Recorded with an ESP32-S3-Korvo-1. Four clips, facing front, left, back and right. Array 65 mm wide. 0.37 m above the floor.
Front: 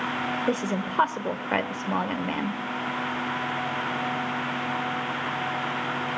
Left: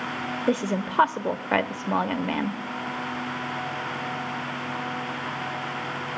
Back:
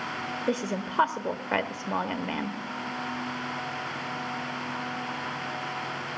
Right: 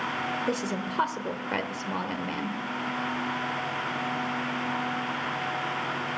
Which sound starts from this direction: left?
A woman speaking, at 0.5 s.